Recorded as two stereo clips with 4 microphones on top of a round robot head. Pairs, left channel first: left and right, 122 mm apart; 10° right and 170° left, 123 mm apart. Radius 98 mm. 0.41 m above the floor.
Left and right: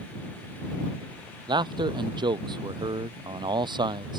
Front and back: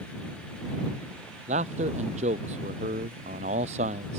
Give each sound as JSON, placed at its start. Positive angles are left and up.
{"t": 1.5, "sound": "a man speaking", "azimuth_deg": -145}